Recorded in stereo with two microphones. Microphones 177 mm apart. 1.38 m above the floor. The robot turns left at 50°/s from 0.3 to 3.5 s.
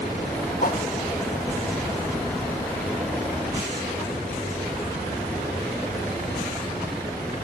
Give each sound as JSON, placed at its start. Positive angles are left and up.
{"t": 0.6, "sound": "a whoosh", "side_deg": 55, "distance_m": 0.9}